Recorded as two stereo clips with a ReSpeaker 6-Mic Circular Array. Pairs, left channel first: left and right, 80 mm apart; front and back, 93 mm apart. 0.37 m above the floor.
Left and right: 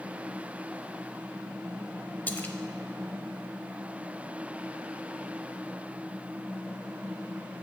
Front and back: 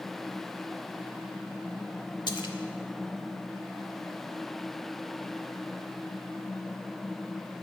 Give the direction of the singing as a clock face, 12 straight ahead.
No singing in this recording.